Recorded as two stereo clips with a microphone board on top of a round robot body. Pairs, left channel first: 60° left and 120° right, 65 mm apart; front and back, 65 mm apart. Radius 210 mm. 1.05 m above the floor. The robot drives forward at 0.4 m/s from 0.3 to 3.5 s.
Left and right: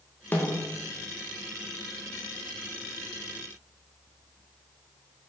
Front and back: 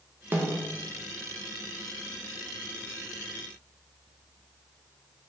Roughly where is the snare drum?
Behind left.